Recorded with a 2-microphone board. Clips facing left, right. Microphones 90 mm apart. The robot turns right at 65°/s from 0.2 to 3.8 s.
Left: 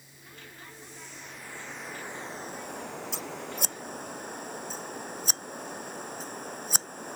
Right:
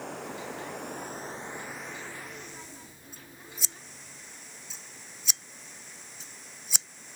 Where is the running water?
105° right; by 7.2 s 125° left.